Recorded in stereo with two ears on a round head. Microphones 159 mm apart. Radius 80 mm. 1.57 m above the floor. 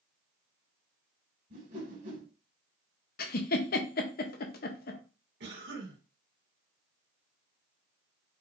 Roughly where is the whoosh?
Right.